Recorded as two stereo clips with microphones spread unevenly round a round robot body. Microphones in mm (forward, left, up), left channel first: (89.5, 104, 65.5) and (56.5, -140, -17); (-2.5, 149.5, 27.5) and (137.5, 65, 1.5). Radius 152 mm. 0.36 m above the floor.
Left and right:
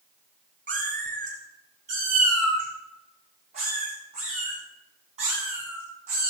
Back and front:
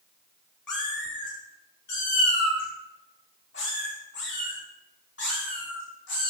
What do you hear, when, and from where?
0.7 s a cat meowing: 160° right, 1.8 m; by 6.3 s 170° right, 6 m